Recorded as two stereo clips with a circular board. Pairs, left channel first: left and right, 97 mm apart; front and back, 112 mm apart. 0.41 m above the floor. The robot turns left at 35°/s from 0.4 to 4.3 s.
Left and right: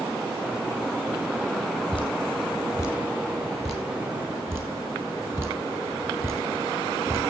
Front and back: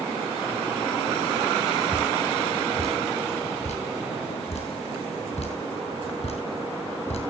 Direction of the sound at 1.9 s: 60° left.